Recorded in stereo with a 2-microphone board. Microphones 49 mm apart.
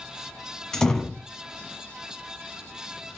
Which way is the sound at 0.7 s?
10° left (ahead or behind).